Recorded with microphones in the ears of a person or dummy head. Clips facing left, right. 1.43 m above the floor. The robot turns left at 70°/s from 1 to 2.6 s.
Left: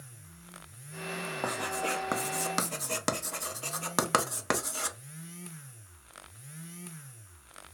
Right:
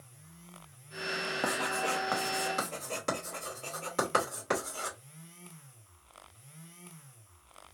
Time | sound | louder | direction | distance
1.4 | writing | even | 10° right (ahead or behind) | 0.7 m